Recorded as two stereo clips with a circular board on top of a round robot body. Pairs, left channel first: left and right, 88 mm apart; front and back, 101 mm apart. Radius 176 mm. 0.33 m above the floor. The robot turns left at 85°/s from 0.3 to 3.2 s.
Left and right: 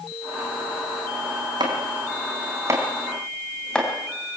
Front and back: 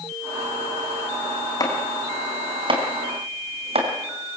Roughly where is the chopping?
Ahead right.